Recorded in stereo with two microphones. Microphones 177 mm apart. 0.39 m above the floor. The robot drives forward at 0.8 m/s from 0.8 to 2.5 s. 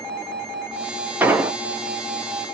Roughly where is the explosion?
Centre.